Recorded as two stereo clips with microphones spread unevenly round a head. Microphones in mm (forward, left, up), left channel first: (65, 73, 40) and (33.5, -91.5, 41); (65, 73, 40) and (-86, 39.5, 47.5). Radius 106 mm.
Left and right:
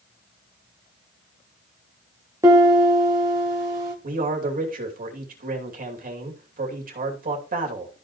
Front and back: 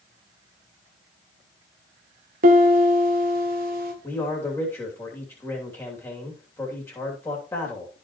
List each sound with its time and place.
2.4 s a piano: 175° right, 1.5 m
4.0 s a man speaking: 65° right, 2.5 m